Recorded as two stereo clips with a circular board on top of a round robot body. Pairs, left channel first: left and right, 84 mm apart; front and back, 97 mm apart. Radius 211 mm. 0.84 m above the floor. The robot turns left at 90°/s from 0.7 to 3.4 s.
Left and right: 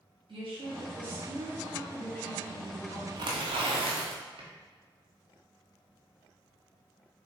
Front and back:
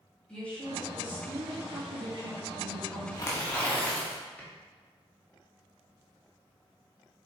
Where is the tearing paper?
55° right, 1.2 m; by 4.5 s 75° right, 1.2 m.